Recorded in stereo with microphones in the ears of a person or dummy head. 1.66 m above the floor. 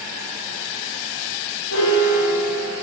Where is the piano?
85° left, 2 m.